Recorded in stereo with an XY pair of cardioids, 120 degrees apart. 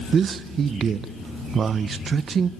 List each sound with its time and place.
0.1 s a man speaking: 45° right, 0.8 m